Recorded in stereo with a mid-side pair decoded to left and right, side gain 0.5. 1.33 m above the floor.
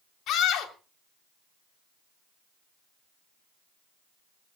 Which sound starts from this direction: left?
A scream, at 0.3 s.